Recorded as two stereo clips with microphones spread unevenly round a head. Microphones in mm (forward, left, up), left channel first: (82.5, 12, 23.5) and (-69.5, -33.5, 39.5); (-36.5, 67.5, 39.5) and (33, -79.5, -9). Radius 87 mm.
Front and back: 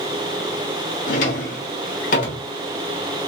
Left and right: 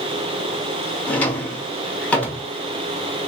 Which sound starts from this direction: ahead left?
A drawer, at 1.1 s.